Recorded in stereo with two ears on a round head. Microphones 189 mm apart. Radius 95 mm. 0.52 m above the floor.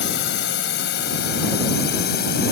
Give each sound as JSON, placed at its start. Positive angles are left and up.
{"t": 0.0, "sound": "a drone", "side_deg": 60}